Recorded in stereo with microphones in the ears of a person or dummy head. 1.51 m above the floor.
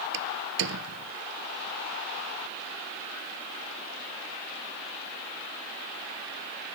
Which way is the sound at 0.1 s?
70° right (ahead or behind).